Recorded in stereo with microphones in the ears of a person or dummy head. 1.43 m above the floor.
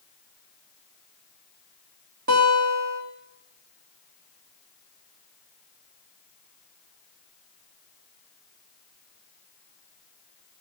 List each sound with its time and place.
2.3 s a guitar: 50° right (ahead or behind), 1.4 m